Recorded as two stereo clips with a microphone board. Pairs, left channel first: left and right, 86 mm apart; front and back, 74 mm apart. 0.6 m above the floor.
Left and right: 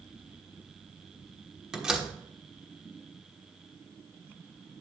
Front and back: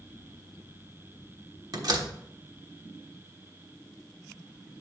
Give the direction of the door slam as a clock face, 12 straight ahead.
6 o'clock.